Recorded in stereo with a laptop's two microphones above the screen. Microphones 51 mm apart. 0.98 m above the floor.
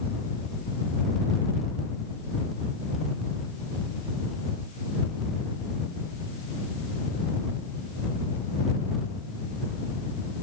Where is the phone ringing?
I don't hear a phone ringing.